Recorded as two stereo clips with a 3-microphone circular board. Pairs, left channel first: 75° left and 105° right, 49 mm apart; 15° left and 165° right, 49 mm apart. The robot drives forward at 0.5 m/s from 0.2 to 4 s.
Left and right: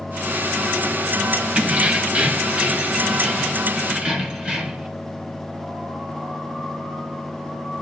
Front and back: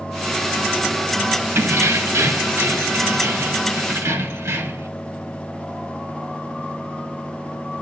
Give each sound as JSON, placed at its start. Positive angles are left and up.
{"t": 1.6, "sound": "keys jangling", "azimuth_deg": -165, "distance_m": 0.9}